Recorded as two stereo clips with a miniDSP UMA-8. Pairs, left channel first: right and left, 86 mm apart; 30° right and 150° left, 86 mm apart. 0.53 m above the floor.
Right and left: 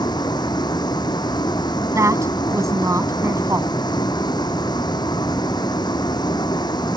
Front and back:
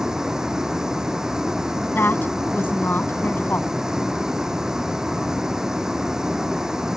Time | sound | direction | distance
0.0 | a vehicle | 125° right | ?
1.9 | a woman speaking | 35° left | ?